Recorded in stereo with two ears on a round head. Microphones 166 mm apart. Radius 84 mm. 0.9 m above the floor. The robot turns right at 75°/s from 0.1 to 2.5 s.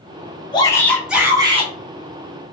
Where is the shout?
140° left, 0.9 m; by 1.7 s 130° right, 0.9 m.